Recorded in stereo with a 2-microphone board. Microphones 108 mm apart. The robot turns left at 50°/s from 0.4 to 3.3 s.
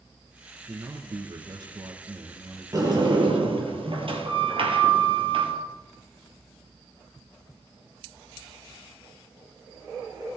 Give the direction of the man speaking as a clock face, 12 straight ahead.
1 o'clock.